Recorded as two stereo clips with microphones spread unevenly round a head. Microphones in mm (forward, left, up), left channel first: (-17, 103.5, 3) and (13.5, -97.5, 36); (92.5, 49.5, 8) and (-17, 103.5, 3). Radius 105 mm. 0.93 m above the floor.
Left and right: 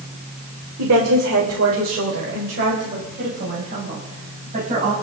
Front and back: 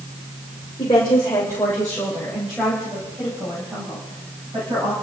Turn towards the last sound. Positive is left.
turn(degrees=-135)